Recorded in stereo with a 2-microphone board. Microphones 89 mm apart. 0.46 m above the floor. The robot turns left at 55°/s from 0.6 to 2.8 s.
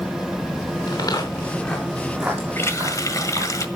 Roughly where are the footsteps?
Left.